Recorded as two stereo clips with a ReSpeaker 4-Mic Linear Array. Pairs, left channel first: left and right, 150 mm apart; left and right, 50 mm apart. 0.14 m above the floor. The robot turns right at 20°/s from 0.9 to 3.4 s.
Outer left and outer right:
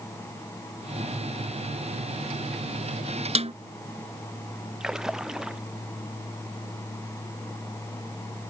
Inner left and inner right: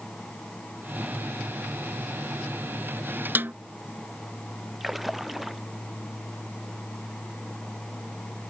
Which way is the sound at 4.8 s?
5° right (ahead or behind).